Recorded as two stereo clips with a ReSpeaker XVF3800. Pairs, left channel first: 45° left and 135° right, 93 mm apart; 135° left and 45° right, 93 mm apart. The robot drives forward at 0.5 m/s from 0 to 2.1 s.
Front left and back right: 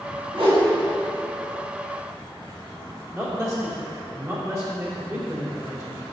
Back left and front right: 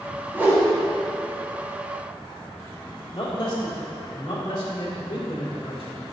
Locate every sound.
0.3 s a whoosh: 115° right, 2 m
3.1 s a man speaking: 165° left, 2.5 m